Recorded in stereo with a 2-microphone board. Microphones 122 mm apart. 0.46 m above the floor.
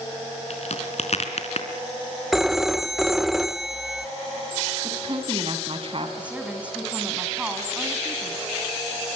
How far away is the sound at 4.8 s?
About 4 m.